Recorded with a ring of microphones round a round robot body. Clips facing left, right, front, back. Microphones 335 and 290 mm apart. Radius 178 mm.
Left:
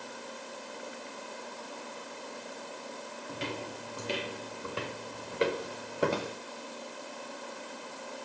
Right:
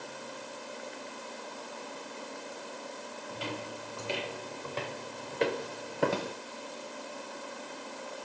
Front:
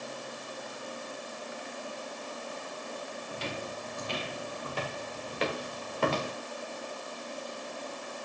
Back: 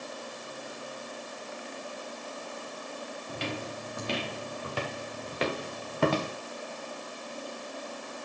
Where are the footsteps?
150° left, 4 m; by 6.3 s straight behind, 4 m.